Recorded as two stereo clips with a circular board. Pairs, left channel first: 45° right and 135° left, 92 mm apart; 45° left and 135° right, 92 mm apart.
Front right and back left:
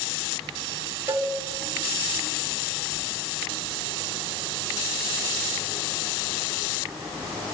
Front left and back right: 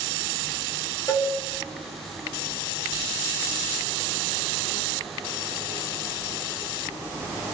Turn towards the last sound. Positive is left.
turn(degrees=80)